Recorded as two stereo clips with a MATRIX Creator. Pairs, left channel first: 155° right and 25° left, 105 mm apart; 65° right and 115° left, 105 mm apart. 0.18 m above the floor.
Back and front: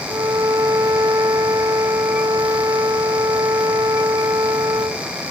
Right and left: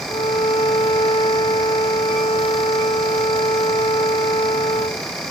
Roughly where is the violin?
Ahead right.